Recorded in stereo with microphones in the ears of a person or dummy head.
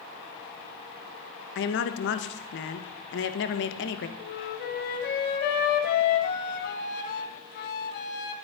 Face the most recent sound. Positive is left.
turn(degrees=50)  # may be behind; listen again after turning